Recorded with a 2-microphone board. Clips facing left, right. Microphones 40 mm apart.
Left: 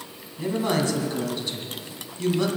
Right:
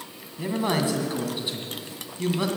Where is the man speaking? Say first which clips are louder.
Left 1 dB; 15° right (ahead or behind), 2.5 m.